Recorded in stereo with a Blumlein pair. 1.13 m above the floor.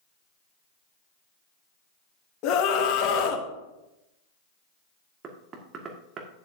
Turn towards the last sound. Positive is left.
turn(degrees=-25)